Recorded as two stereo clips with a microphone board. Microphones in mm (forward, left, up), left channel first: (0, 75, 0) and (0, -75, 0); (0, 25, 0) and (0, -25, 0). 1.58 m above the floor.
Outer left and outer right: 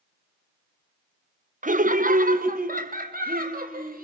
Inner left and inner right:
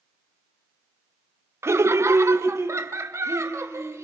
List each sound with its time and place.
1.6 s laughter: 60° right (ahead or behind), 0.8 m; by 4.0 s 70° right (ahead or behind), 2.5 m